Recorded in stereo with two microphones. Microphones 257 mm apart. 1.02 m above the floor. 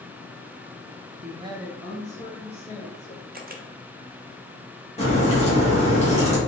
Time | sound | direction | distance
1.2 | a woman speaking | 40° right (ahead or behind) | 0.5 m
3.3 | a camera shutter | 35° right (ahead or behind) | 0.5 m
5.0 | a crack | 25° left (ahead or behind) | 1.6 m